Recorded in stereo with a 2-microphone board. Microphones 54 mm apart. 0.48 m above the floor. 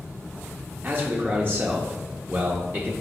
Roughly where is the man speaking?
Right.